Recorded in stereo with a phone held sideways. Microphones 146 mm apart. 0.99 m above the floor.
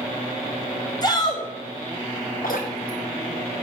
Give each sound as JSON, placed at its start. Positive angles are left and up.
{"t": 1.0, "sound": "a shout", "side_deg": 30, "distance_m": 6.0}
{"t": 2.4, "sound": "dripping", "side_deg": 85, "distance_m": 6.0}